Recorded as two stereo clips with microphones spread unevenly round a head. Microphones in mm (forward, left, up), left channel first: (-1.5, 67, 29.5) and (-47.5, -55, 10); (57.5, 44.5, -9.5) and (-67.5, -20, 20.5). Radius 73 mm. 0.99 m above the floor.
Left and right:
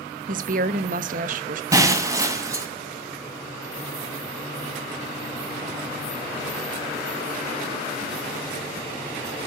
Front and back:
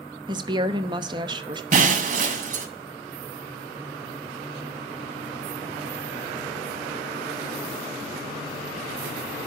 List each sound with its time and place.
0.3 s a woman speaking: 90° right, 1.0 m
1.7 s breaking glass: straight behind, 2 m